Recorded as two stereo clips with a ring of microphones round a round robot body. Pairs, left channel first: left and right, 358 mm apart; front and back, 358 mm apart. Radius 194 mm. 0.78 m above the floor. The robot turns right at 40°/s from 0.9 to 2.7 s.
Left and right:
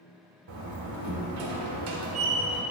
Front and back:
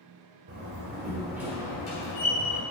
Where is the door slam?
115° right, 1.4 m; by 2.6 s 45° right, 1.4 m.